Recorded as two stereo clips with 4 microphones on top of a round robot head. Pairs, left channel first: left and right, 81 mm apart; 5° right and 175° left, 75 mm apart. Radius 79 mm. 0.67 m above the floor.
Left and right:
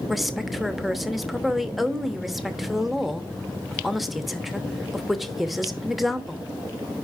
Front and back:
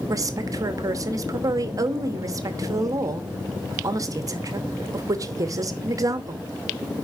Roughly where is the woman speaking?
Behind.